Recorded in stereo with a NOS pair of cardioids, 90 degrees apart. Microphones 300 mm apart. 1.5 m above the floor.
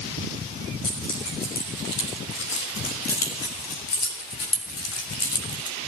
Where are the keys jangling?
65° left, 5.5 m; by 5.8 s 50° left, 3 m.